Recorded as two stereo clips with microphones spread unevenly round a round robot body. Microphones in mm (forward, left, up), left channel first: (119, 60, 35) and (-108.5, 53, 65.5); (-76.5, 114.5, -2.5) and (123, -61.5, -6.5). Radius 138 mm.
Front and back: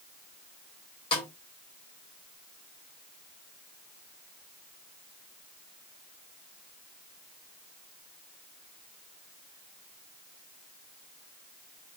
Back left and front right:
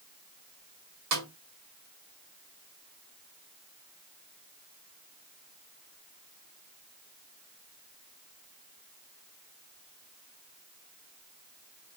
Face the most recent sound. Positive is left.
turn(degrees=-65)